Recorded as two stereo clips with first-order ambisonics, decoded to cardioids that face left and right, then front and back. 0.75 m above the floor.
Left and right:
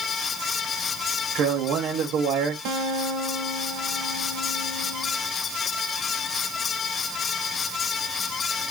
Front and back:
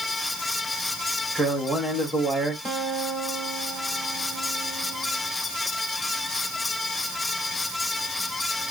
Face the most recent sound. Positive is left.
turn(degrees=-95)